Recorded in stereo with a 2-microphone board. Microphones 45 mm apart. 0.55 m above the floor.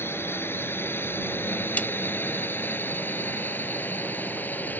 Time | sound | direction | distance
0.0 | a drone | 60° left (ahead or behind) | ?
1.8 | a snare drum | 35° left (ahead or behind) | ?